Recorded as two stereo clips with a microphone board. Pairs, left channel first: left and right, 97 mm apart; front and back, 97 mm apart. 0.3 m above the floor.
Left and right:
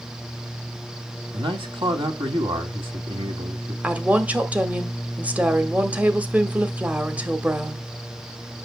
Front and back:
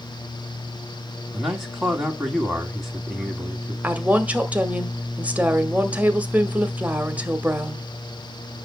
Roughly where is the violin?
I don't hear a violin.